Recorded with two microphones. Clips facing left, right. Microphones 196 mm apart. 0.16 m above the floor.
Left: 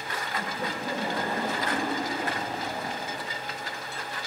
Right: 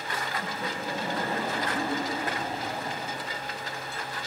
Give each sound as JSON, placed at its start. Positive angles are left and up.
{"t": 0.4, "sound": "laughter", "side_deg": 65, "distance_m": 9.0}